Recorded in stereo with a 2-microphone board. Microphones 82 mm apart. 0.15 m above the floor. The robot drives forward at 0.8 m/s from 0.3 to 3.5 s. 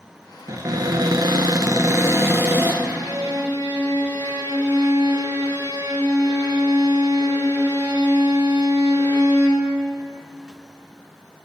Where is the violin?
35° right (ahead or behind), 1.1 m; by 9.7 s 25° right (ahead or behind), 1.6 m.